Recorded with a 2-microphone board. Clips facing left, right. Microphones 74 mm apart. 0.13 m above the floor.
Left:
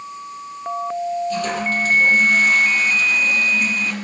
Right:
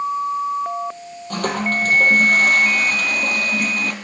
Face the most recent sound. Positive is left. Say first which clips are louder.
# even
turn(degrees=-55)  # may be behind; listen again after turning